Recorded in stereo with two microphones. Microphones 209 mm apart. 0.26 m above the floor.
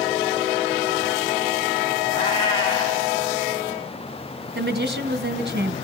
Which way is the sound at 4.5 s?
55° right (ahead or behind).